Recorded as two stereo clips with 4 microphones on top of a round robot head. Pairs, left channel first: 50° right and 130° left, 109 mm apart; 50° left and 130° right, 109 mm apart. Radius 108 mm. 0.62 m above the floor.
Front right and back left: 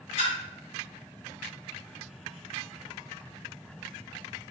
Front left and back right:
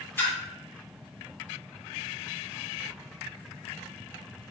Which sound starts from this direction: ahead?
A splash, at 0.2 s.